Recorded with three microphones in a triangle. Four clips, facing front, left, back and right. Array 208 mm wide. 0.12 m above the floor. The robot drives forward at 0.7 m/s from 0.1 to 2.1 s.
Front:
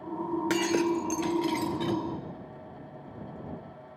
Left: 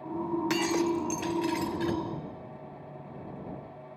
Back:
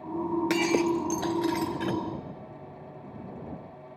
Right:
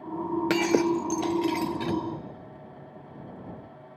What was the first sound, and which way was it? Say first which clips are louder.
Breaking glass: right 6 dB, back 1 dB; 95° right.